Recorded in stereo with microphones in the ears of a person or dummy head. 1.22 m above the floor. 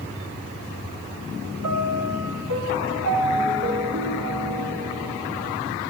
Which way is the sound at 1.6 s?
80° right.